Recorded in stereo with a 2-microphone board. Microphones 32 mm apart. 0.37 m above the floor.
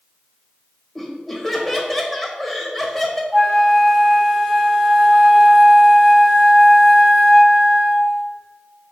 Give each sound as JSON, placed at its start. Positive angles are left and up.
{"t": 0.9, "sound": "laughter", "side_deg": 5, "distance_m": 1.5}
{"t": 3.3, "sound": "a flute", "side_deg": -10, "distance_m": 3.0}